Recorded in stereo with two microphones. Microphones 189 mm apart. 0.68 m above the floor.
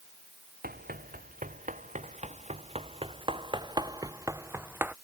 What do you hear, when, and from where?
0.6 s running footsteps: 50° right (ahead or behind); by 5.0 s 10° right (ahead or behind)